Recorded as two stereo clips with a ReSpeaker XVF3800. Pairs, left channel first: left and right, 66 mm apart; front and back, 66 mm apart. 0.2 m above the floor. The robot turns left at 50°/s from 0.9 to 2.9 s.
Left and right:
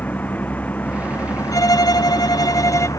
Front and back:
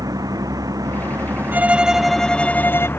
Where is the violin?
120° left; by 2.9 s 50° left.